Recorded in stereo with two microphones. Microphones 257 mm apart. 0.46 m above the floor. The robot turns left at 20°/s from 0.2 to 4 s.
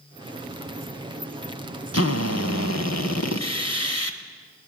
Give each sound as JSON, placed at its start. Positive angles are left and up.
{"t": 1.9, "sound": "a drill", "azimuth_deg": 110, "distance_m": 1.5}